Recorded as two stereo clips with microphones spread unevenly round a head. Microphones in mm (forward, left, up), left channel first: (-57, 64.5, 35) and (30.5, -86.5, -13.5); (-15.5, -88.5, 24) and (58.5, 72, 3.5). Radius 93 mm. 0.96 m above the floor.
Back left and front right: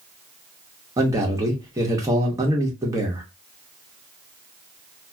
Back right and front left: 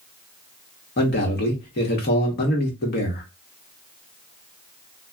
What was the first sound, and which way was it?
A man speaking, 110° right.